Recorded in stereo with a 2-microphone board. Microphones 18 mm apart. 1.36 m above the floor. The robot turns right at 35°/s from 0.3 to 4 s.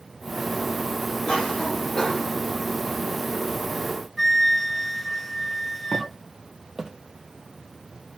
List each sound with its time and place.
1.2 s a cough: 115° left, 5 m; by 2.3 s 155° left, 5 m
4.2 s a flute: 5° left (ahead or behind), 0.6 m
5.9 s footsteps: 10° right (ahead or behind), 2.5 m; by 6.9 s 25° right (ahead or behind), 2.5 m